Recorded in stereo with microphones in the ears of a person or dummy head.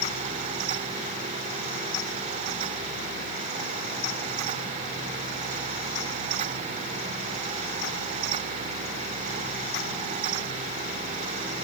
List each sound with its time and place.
Only background noise.